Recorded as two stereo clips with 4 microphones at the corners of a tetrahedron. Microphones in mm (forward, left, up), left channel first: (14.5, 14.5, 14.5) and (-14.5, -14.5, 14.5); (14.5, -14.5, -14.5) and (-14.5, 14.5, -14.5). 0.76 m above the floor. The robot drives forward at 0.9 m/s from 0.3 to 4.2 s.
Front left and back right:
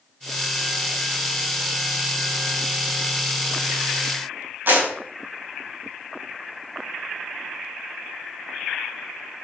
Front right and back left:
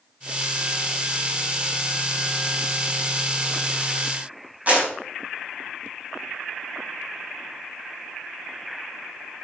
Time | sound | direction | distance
4.7 | a clap | 165° right | 4 m